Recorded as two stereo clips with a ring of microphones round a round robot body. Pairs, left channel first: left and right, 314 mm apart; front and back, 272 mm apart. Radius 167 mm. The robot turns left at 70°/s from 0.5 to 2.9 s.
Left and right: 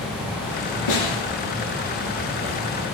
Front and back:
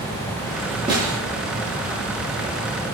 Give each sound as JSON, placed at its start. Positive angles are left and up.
{"t": 0.9, "sound": "a snare drum", "azimuth_deg": 105, "distance_m": 5.0}